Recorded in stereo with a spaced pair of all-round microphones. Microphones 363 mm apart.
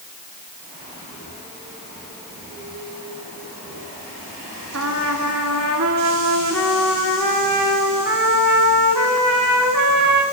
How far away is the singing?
I don't hear singing.